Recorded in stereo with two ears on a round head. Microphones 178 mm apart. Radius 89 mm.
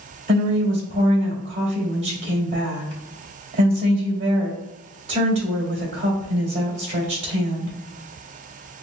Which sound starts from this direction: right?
A woman speaking, at 0.3 s.